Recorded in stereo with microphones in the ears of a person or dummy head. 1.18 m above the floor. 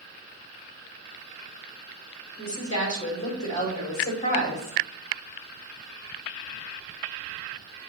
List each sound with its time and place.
2.4 s a woman speaking: 35° left (ahead or behind), 3.5 m